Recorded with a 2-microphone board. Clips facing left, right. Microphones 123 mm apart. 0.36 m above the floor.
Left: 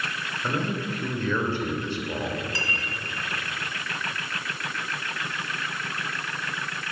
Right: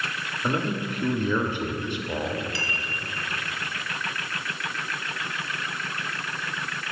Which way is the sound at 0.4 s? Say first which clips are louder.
Right 2 dB; 15° right (ahead or behind).